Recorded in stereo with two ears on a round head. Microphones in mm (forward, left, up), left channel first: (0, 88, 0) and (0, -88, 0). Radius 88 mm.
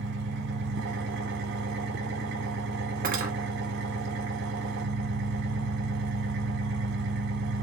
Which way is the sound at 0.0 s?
60° right (ahead or behind).